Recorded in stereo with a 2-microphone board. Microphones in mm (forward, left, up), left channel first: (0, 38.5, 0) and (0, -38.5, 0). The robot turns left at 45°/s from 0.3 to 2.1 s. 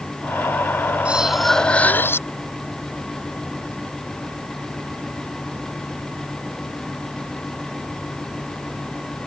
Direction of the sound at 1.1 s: 165° right.